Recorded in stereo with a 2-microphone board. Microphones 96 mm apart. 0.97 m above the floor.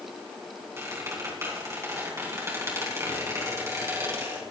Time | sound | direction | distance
0.8 | a squeak | 30° right (ahead or behind) | 3 m